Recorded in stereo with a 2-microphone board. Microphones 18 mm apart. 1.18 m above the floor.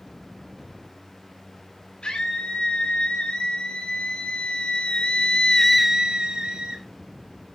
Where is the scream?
80° left, 5 m; by 6.8 s 80° right, 1.4 m.